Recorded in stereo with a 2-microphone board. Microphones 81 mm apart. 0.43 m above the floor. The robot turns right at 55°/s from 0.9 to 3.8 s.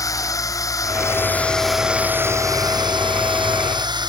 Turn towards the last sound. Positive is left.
turn(degrees=-65)